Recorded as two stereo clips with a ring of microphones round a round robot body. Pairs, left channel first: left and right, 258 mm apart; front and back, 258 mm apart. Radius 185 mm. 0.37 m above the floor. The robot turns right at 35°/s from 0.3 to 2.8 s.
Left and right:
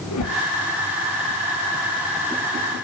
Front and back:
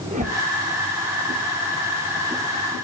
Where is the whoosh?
115° left, 7.5 m; by 0.4 s 120° left, 7.5 m.